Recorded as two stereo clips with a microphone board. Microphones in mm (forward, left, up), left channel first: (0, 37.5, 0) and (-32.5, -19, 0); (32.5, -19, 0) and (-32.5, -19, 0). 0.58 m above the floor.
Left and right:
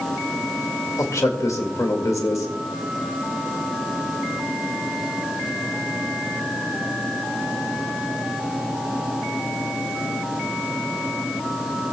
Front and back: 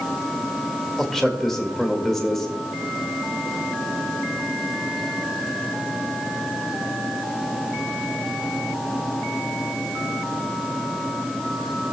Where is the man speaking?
85° left, 1.9 m.